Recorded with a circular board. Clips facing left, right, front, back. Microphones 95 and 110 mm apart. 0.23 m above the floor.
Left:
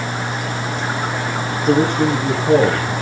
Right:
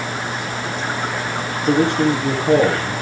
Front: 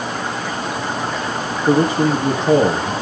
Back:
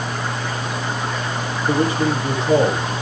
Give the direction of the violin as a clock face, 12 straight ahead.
No violin in this recording.